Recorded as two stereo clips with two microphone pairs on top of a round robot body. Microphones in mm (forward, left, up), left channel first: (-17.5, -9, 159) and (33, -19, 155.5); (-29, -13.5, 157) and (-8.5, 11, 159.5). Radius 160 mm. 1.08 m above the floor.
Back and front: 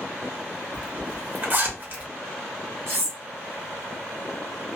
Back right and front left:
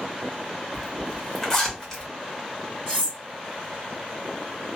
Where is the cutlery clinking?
30° right, 1.2 m.